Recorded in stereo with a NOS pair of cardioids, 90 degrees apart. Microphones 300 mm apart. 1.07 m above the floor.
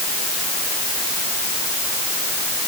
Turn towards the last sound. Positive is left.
No sound to turn to.